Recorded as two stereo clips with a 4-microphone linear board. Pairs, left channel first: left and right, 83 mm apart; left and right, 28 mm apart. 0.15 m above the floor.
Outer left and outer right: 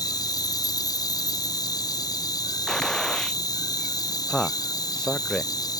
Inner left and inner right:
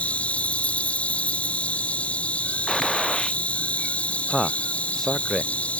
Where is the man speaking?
10° left (ahead or behind).